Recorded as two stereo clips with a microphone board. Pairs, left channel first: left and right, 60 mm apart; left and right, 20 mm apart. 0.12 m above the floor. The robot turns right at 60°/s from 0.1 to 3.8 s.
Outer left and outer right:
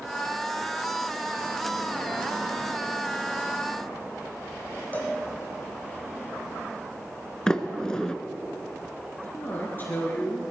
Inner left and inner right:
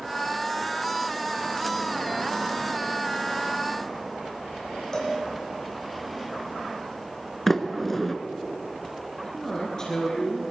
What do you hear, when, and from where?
4.9 s a cowbell: 25° left (ahead or behind), 3 m
7.5 s a sliding door: 10° left (ahead or behind), 0.9 m
9.2 s a man speaking: 35° left (ahead or behind), 2 m